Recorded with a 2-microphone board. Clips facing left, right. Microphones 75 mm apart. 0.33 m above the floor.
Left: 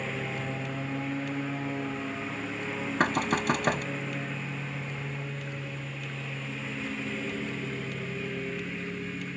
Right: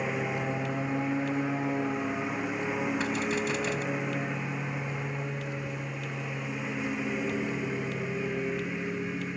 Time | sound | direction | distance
0.0 | a lawn mower | 15° right (ahead or behind) | ?
3.0 | knocking | 55° left (ahead or behind) | ?